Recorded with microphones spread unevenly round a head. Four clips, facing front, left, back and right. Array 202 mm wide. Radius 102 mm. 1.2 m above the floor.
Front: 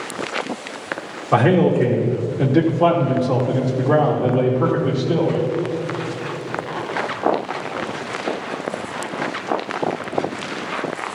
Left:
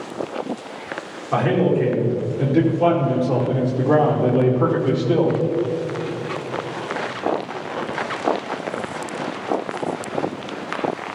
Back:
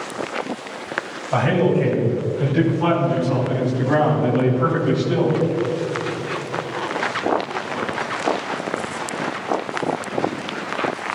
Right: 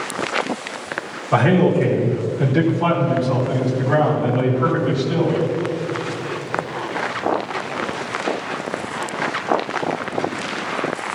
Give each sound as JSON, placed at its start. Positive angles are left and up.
{"t": 1.3, "sound": "a man speaking", "azimuth_deg": -10, "distance_m": 2.5}